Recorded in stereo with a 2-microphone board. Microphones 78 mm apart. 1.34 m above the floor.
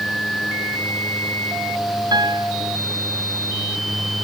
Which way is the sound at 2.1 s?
65° right (ahead or behind).